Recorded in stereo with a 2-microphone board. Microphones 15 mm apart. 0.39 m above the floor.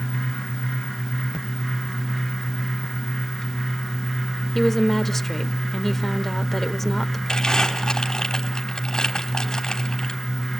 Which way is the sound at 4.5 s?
20° left (ahead or behind).